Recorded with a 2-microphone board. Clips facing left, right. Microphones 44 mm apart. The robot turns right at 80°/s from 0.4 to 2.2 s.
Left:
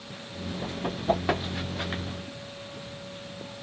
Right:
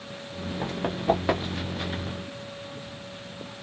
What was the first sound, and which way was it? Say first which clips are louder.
Running footsteps: right 2 dB; 75° right (ahead or behind).